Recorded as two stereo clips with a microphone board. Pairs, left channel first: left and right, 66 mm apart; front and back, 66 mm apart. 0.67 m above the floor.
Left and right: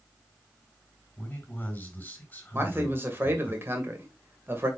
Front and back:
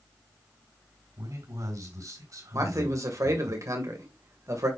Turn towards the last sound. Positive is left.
turn(degrees=-145)